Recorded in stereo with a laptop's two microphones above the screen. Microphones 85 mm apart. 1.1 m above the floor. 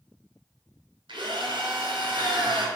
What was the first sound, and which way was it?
A drill, 65° right (ahead or behind).